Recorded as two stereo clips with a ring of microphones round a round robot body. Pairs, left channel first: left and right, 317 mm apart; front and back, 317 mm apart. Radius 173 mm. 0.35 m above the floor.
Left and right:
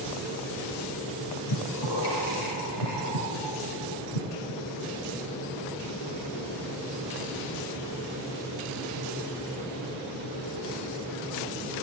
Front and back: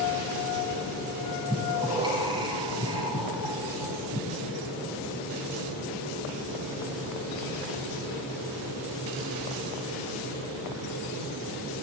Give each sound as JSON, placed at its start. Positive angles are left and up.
{"t": 1.5, "sound": "breathing", "azimuth_deg": 105, "distance_m": 8.0}